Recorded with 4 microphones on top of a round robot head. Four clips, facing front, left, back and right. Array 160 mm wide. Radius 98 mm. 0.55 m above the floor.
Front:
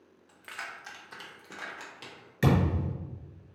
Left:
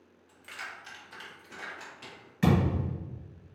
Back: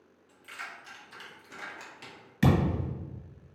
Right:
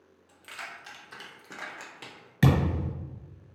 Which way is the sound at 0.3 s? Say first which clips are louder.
Even, front 2 dB; 5° right.